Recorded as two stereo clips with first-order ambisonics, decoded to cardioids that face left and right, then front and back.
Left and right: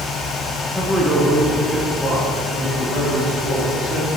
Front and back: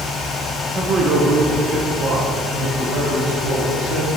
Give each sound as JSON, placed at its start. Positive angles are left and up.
{"t": 0.8, "sound": "a man speaking", "azimuth_deg": -165, "distance_m": 0.8}